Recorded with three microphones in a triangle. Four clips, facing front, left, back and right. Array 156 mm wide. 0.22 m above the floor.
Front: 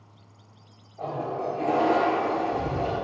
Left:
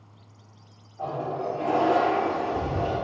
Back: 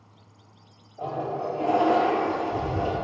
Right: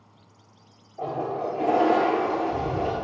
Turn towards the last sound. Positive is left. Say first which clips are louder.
# right 1 dB, back 1 dB
turn(degrees=-100)